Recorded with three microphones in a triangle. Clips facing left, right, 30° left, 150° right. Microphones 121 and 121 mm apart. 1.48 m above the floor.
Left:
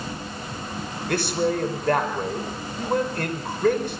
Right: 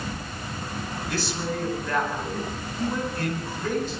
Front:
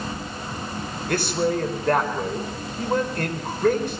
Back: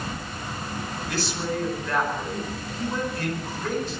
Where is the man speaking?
60° left, 5 m.